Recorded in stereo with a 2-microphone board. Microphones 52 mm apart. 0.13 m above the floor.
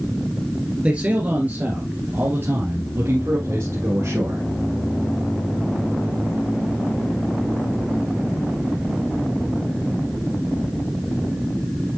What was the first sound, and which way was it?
A man speaking, 25° right (ahead or behind).